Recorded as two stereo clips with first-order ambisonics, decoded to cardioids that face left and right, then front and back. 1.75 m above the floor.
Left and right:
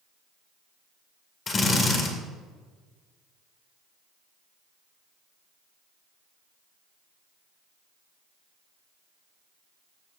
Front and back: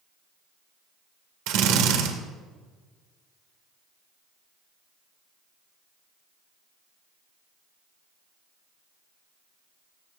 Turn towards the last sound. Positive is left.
turn(degrees=160)